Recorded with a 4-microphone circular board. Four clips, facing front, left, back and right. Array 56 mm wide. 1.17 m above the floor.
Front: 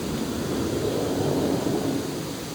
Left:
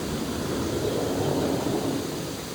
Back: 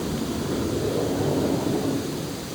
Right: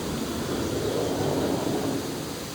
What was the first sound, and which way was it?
Only background noise.